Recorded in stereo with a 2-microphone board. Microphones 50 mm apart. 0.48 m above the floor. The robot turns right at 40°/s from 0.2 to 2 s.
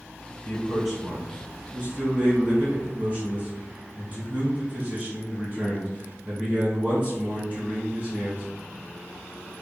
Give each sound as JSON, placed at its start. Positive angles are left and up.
{"t": 0.5, "sound": "a man speaking", "azimuth_deg": 160, "distance_m": 2.0}